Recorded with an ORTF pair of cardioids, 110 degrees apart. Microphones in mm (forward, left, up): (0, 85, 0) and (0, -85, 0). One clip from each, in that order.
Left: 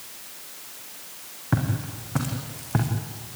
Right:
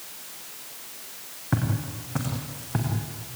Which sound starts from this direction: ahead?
Footsteps, at 1.5 s.